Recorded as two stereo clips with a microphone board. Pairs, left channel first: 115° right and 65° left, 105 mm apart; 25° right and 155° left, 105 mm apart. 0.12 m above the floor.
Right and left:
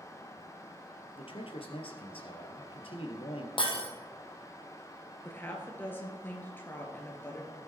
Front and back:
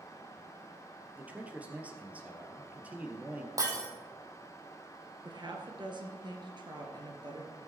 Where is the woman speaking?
Straight behind, 2.5 m.